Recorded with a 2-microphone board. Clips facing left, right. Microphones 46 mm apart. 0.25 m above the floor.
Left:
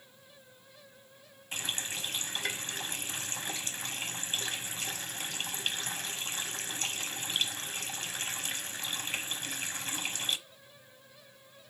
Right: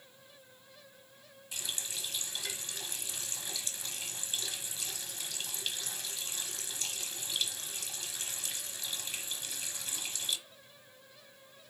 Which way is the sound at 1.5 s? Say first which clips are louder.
Left 5 dB; 45° left (ahead or behind).